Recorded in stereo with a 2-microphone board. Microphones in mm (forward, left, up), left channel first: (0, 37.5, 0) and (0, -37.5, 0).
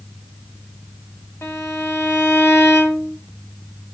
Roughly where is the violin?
Left.